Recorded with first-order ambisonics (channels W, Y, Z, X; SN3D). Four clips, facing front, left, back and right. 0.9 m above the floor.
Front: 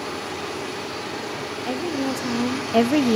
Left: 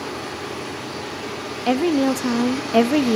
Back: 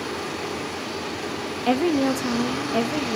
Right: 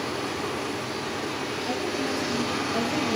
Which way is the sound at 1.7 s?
120° left.